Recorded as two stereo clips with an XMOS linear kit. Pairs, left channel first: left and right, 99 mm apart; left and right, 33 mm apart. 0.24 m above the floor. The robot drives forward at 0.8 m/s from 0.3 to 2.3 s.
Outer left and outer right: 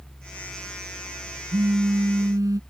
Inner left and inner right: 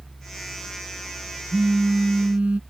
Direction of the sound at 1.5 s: 50° right (ahead or behind).